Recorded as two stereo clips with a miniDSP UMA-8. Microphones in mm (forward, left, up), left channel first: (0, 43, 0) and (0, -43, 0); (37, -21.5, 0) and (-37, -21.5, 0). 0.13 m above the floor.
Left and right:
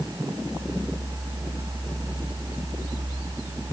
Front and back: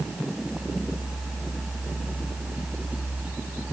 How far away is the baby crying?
No baby crying in this recording.